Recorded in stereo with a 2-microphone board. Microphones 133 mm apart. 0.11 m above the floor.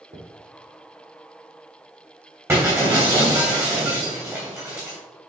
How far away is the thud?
About 3 m.